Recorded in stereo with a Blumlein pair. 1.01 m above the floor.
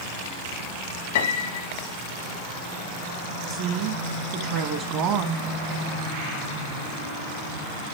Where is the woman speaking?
40° right, 1.0 m.